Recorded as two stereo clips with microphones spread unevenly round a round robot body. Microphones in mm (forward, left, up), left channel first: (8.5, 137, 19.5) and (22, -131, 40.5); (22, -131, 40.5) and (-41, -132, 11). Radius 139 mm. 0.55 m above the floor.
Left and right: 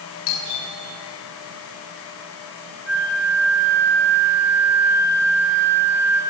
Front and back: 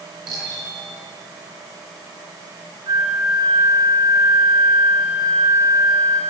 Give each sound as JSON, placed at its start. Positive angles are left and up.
{"t": 0.3, "sound": "a doorbell", "azimuth_deg": 100, "distance_m": 8.5}
{"t": 2.9, "sound": "a flute", "azimuth_deg": -175, "distance_m": 5.0}